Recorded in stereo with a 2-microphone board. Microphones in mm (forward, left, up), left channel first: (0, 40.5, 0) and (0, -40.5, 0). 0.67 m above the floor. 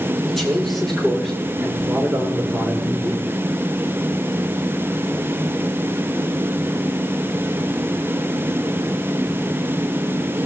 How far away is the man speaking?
About 7.5 m.